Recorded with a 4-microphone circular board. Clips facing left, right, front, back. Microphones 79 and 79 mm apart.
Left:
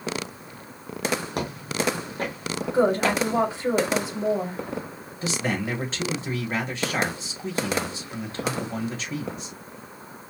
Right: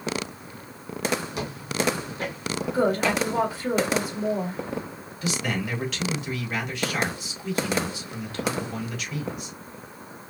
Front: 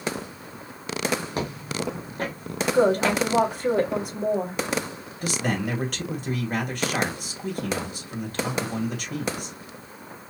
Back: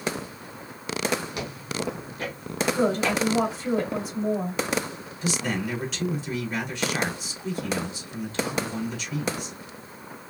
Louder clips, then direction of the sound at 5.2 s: Left 1 dB, front 1 dB; 35° left.